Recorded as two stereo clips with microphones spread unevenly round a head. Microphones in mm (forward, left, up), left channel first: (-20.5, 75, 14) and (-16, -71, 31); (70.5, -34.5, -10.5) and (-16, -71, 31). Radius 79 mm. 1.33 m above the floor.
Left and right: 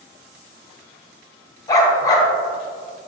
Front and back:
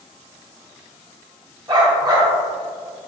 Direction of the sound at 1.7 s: 160° left.